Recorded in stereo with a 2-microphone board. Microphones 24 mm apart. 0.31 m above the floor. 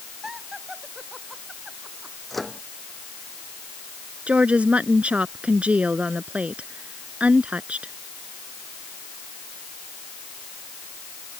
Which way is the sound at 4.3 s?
60° right (ahead or behind).